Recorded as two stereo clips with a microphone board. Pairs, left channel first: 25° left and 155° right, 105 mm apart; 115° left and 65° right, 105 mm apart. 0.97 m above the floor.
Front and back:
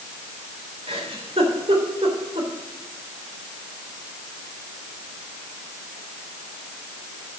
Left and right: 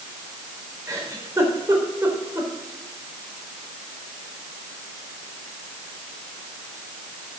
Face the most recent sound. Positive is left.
turn(degrees=-130)